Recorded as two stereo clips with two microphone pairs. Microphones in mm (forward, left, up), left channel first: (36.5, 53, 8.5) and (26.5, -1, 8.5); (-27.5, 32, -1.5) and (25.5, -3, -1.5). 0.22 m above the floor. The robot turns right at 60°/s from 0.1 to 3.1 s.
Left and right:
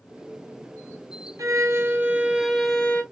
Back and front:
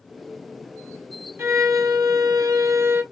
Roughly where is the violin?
Right.